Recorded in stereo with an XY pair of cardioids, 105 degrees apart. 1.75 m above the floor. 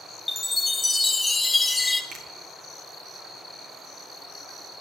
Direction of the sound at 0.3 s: 15° left.